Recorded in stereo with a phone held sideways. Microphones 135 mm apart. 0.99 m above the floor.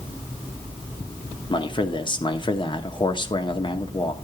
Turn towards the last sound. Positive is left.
turn(degrees=35)  # may be behind; listen again after turning